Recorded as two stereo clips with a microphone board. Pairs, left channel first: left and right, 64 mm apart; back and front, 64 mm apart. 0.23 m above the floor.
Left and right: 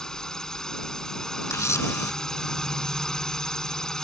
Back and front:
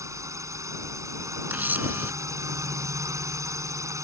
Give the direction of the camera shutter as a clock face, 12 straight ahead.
10 o'clock.